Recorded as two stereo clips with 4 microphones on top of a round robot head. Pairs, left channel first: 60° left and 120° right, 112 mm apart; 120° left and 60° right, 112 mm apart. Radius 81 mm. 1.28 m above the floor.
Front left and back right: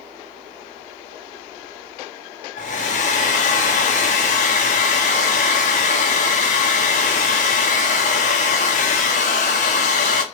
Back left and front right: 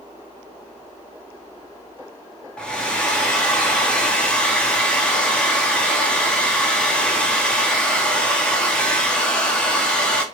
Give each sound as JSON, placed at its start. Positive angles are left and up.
{"t": 2.6, "sound": "a hair dryer", "azimuth_deg": 40, "distance_m": 1.1}